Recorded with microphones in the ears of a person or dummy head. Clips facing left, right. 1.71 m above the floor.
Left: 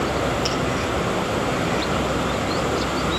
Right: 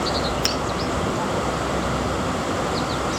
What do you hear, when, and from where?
0.4 s a finger snap: 50° right (ahead or behind), 1.3 m